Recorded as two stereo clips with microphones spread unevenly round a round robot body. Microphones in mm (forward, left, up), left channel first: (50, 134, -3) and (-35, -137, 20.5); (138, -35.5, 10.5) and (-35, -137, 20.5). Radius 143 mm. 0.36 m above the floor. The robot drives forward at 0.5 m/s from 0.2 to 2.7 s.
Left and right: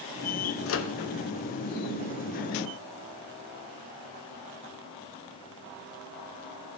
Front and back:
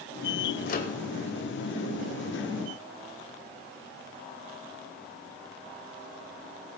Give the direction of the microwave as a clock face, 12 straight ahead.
10 o'clock.